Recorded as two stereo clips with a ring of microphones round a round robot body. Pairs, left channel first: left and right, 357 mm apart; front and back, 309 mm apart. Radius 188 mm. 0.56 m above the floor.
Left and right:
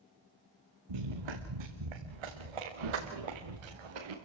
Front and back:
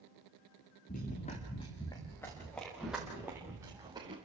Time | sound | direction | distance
0.9 | running footsteps | 70° right | 3 m